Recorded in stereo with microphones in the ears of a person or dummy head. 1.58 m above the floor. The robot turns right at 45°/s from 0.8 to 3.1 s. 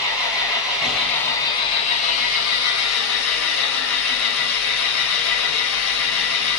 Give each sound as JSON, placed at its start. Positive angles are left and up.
{"t": 0.0, "sound": "an engine running", "azimuth_deg": -5, "distance_m": 4.5}